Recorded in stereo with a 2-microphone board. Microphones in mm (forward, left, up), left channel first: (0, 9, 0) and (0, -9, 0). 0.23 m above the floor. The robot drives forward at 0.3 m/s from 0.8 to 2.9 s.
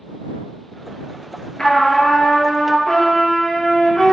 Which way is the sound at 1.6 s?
45° left (ahead or behind).